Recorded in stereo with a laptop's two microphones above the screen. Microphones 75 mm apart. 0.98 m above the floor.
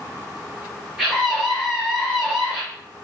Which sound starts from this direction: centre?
A scream, at 1.0 s.